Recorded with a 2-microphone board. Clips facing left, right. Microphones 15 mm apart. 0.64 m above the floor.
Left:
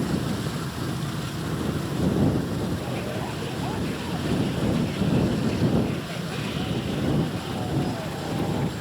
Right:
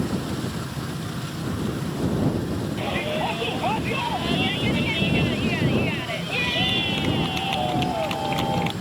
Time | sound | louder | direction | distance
2.8 | a shout | right 5 dB | 60° right (ahead or behind) | ?